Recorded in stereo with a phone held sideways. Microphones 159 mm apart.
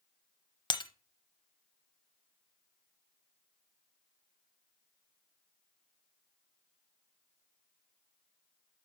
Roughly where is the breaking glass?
Left.